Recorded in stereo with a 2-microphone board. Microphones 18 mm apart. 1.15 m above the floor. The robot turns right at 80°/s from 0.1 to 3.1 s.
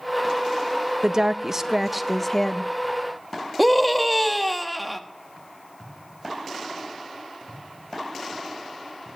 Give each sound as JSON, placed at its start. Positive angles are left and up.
{"t": 1.0, "sound": "a woman speaking", "azimuth_deg": -80, "distance_m": 0.5}
{"t": 3.6, "sound": "a scream", "side_deg": -5, "distance_m": 1.0}